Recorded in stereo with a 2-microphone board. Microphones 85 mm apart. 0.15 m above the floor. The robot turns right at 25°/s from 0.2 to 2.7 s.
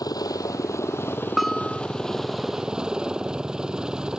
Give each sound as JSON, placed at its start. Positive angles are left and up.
{"t": 0.0, "sound": "a helicopter", "azimuth_deg": 125}
{"t": 1.4, "sound": "a bell", "side_deg": 0}